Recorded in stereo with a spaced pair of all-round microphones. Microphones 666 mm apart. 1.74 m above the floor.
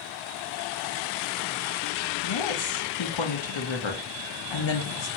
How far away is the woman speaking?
About 0.6 m.